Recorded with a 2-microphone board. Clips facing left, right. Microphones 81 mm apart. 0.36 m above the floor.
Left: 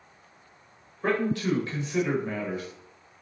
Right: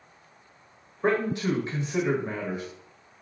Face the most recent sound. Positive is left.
turn(degrees=-20)  # may be behind; listen again after turning